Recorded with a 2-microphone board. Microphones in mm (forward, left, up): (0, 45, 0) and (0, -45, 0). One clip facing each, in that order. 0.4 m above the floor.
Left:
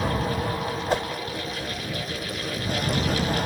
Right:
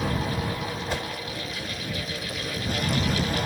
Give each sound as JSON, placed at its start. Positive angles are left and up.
{"t": 0.9, "sound": "a whoosh", "side_deg": 40}